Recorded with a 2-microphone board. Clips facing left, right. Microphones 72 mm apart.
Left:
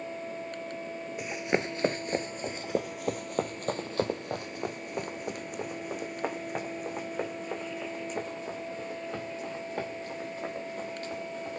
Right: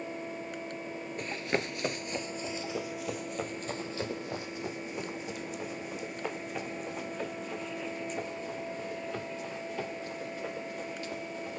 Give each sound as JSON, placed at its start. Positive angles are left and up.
{"t": 1.2, "sound": "running footsteps", "side_deg": 10, "distance_m": 0.7}